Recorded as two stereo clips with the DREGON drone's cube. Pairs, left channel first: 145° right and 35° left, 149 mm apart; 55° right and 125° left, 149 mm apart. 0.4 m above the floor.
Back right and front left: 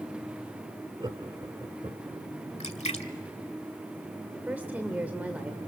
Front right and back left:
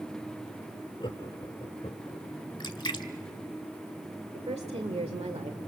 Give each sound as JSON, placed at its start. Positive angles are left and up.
{"t": 1.0, "sound": "laughter", "azimuth_deg": -15, "distance_m": 1.2}
{"t": 2.6, "sound": "a splash", "azimuth_deg": -110, "distance_m": 1.2}
{"t": 4.3, "sound": "a woman speaking", "azimuth_deg": 110, "distance_m": 1.6}